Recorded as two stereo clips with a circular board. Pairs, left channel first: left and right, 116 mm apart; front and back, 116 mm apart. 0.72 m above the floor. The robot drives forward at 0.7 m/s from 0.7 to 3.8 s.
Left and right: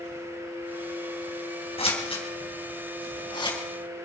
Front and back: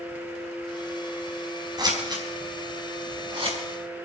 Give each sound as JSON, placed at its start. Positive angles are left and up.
{"t": 1.8, "sound": "scissors", "azimuth_deg": 125, "distance_m": 4.0}